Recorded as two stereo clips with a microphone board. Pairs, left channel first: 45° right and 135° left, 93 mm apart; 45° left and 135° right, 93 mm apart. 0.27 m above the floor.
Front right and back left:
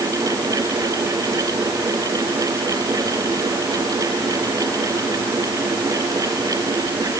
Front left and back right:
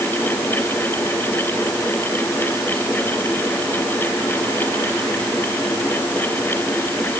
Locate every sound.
Only background noise.